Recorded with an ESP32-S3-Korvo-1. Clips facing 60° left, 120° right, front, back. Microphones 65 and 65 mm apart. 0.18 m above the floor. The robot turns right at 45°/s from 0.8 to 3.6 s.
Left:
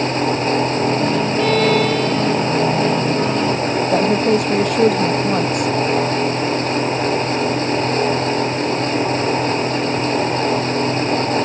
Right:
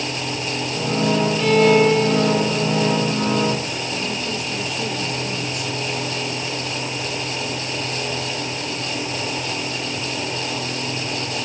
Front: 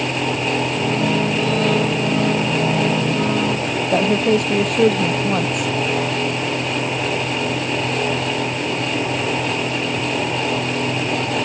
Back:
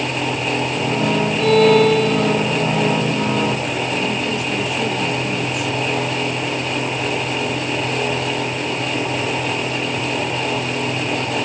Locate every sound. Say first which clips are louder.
1.4 s a violin: right 2 dB, back 6 dB; 155° left; by 2.6 s 150° right
3.9 s a woman speaking: left 14 dB, front 5 dB; 30° left